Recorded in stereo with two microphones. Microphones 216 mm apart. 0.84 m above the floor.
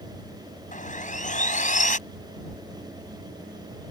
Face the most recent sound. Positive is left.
turn(degrees=35)  # may be behind; listen again after turning